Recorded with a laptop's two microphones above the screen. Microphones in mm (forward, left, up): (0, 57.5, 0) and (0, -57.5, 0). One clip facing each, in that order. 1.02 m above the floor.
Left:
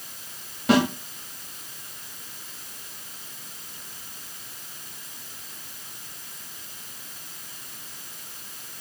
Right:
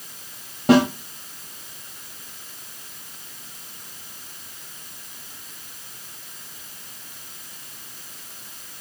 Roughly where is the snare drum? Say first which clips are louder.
Right 5 dB; right.